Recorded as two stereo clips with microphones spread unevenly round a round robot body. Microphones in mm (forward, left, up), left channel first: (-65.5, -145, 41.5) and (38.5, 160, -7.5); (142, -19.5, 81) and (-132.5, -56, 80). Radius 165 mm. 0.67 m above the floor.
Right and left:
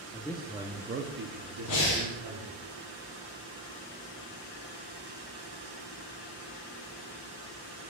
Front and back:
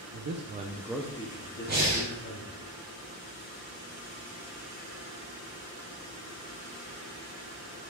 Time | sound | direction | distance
0.1 | a man speaking | 170° left | 0.8 m
1.7 | breathing | 120° right | 3 m